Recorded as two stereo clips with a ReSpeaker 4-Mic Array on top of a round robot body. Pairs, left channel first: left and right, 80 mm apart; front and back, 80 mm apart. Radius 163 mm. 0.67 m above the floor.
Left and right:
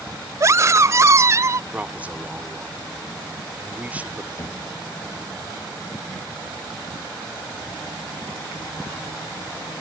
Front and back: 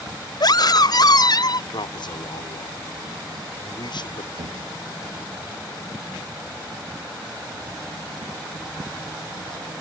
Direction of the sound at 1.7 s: 15° right.